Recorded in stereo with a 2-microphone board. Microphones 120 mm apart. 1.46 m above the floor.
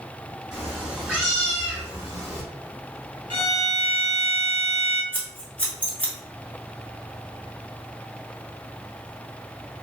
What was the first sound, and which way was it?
A cat meowing, 5° right (ahead or behind).